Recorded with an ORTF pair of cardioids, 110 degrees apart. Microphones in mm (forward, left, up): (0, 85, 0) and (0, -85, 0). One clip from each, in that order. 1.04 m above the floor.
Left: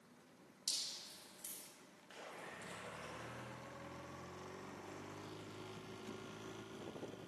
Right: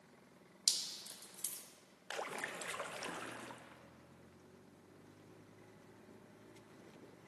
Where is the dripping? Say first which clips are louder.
Right 5 dB; 55° right, 1.6 m.